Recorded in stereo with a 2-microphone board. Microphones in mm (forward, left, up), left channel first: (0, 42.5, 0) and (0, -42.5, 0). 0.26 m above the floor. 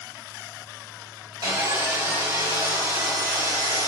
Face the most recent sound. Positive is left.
turn(degrees=-40)  # may be behind; listen again after turning